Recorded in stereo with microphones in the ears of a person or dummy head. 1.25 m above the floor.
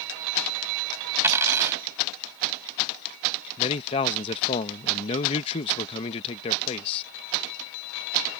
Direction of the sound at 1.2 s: 15° right (ahead or behind).